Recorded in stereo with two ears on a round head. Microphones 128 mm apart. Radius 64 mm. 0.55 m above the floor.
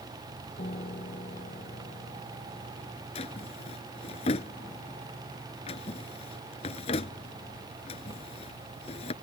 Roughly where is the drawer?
Left.